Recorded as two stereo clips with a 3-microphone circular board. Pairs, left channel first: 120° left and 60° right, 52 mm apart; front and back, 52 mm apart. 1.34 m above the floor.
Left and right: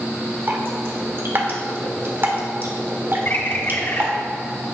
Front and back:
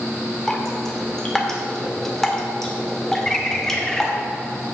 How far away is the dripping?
About 1.3 m.